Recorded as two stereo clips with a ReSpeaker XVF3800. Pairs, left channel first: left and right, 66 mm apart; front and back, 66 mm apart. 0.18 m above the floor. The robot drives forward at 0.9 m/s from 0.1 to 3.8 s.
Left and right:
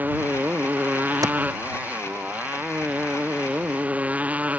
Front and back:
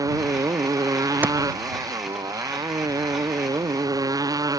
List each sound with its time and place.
0.0 s a motorcycle: 150° right; by 4.6 s 155° right
1.2 s a clap: 115° right